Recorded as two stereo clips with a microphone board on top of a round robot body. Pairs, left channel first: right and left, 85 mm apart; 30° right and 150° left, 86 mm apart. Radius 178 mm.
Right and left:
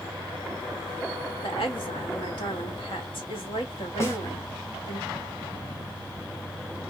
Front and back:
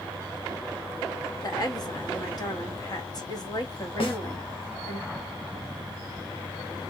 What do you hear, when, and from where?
1.4 s a woman speaking: 75° right, 1.6 m
4.0 s a snare drum: 30° right, 1.4 m